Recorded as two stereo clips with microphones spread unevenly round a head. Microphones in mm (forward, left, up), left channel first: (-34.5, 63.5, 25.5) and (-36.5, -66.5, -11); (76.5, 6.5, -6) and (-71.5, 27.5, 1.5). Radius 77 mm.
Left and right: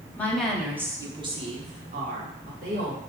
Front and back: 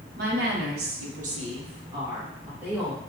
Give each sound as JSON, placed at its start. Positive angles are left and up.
{"t": 0.2, "sound": "a woman speaking", "azimuth_deg": 160, "distance_m": 1.3}